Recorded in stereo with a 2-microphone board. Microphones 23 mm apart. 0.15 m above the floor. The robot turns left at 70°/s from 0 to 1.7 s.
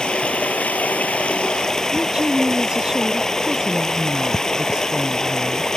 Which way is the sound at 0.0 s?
145° left.